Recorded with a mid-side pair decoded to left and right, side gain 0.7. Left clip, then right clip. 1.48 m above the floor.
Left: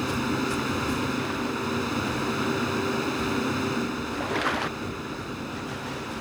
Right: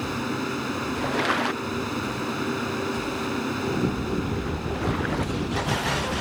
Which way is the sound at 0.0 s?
Straight ahead.